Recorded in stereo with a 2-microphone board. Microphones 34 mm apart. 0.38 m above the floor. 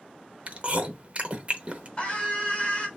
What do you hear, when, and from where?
0.5 s chewing: 35° right (ahead or behind), 0.6 m
2.0 s a scream: 35° left (ahead or behind), 1.4 m